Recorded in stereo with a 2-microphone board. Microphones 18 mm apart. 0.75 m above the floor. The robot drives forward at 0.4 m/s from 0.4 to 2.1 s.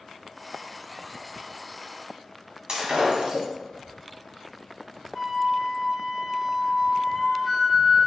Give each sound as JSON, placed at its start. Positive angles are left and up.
{"t": 2.7, "sound": "breaking glass", "side_deg": -50, "distance_m": 1.8}
{"t": 5.2, "sound": "a flute", "side_deg": -10, "distance_m": 1.2}